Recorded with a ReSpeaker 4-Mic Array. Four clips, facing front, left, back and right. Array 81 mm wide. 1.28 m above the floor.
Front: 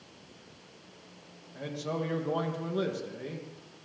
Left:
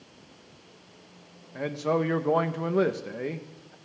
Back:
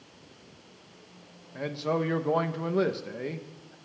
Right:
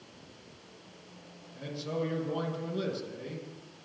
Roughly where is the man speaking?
Behind left.